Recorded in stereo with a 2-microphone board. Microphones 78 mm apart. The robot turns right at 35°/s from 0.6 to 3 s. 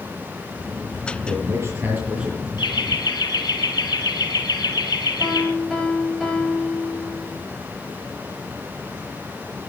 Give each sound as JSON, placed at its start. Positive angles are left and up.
{"t": 1.3, "sound": "a man speaking", "azimuth_deg": -50, "distance_m": 7.0}
{"t": 2.6, "sound": "laughter", "side_deg": 75, "distance_m": 3.5}
{"t": 5.2, "sound": "a piano", "side_deg": 5, "distance_m": 9.0}